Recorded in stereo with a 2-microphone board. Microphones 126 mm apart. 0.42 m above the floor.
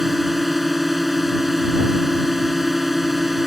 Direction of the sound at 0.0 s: 5° right (ahead or behind).